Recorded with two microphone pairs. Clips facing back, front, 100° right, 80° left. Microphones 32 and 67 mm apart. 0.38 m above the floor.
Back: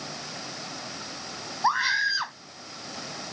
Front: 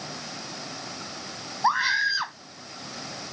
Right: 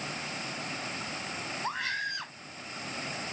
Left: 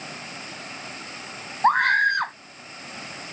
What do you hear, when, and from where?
1.6 s a scream: 85° left